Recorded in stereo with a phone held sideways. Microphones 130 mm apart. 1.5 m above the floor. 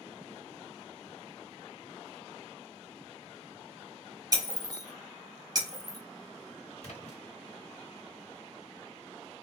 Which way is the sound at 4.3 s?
30° right (ahead or behind).